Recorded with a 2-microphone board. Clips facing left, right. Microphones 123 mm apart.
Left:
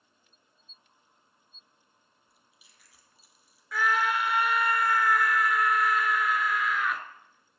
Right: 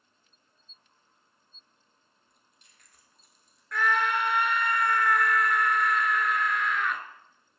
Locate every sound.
2.3 s chewing: 5° left (ahead or behind), 2 m
3.7 s a scream: 5° left (ahead or behind), 1.2 m